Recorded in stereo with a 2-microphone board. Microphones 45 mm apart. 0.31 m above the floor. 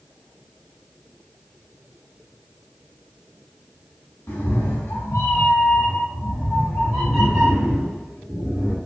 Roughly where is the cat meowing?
Left.